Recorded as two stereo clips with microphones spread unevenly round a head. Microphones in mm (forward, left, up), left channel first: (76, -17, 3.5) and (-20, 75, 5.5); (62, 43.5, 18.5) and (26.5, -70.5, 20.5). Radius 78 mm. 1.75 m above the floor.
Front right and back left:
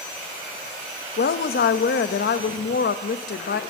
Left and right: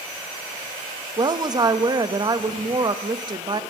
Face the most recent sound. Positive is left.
turn(degrees=-50)